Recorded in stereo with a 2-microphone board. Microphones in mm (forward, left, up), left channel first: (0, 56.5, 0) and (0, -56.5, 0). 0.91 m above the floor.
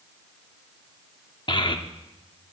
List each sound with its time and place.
1.5 s a child speaking: 45° left (ahead or behind), 0.9 m